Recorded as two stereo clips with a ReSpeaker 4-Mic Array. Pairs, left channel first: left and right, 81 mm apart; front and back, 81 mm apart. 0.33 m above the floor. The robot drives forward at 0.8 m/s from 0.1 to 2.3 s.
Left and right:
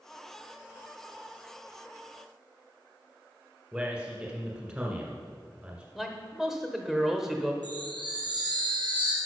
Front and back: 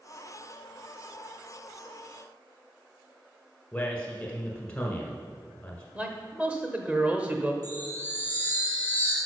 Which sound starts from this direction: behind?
A man speaking, at 6.0 s.